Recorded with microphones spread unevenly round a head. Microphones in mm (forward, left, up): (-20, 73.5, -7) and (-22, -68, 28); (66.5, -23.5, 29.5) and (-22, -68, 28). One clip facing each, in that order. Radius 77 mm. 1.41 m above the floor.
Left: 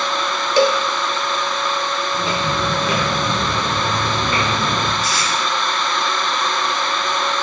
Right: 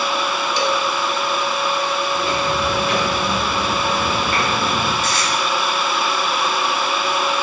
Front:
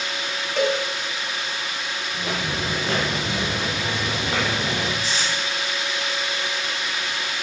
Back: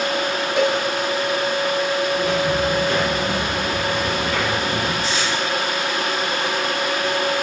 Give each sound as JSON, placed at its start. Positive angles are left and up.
{"t": 0.6, "sound": "a cowbell", "azimuth_deg": 125, "distance_m": 1.2}
{"t": 2.1, "sound": "footsteps", "azimuth_deg": 95, "distance_m": 7.5}
{"t": 5.0, "sound": "tape being pulled", "azimuth_deg": 145, "distance_m": 7.0}